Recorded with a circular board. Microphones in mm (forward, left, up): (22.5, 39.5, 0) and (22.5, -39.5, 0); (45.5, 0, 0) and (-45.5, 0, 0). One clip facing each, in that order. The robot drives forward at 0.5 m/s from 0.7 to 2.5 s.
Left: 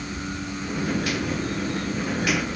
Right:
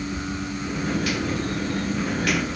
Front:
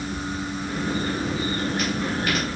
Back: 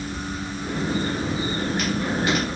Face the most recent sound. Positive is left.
No sound to turn to.